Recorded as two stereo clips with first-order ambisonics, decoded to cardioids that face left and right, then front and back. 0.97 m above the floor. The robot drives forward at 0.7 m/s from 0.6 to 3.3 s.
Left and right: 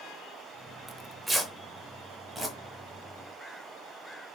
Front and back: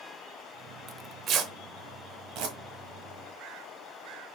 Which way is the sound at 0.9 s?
160° right.